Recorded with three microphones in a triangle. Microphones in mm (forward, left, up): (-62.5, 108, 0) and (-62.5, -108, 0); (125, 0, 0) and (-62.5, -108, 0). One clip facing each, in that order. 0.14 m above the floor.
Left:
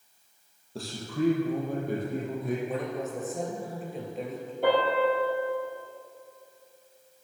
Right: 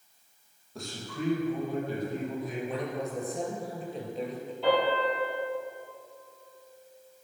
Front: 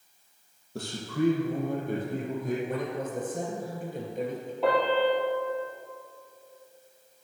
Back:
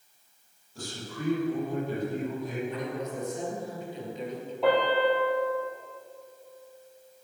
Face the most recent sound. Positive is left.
turn(degrees=120)